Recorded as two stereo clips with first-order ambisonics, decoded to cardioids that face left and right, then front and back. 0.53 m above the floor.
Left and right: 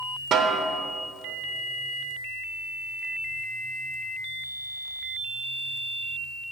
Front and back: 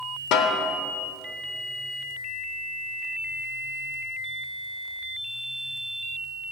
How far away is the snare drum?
About 0.8 m.